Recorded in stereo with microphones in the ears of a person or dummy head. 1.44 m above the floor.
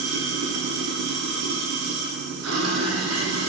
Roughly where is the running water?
Right.